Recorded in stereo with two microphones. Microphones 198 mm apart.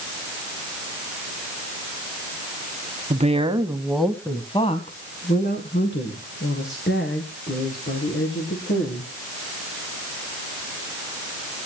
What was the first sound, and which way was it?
A woman speaking, 35° right (ahead or behind).